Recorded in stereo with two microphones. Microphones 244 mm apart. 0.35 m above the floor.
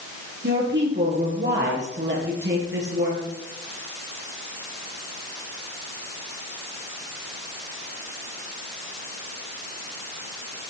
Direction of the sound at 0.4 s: 45° right (ahead or behind).